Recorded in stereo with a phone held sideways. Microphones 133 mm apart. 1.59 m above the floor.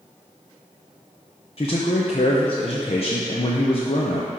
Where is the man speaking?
45° left (ahead or behind), 0.9 m.